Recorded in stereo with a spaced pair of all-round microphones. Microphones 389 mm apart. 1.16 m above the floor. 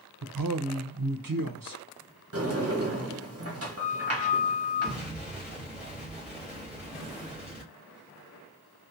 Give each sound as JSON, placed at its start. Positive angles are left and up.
{"t": 0.2, "sound": "a man speaking", "side_deg": -60, "distance_m": 0.6}
{"t": 2.3, "sound": "a sliding door", "side_deg": -35, "distance_m": 0.8}
{"t": 4.8, "sound": "an explosion", "side_deg": -5, "distance_m": 2.0}